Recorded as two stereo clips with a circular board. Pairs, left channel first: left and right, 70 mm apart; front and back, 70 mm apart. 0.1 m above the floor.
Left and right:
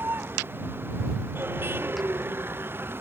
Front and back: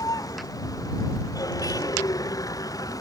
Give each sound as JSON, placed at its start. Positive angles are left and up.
{"t": 0.0, "sound": "a vehicle", "azimuth_deg": -30}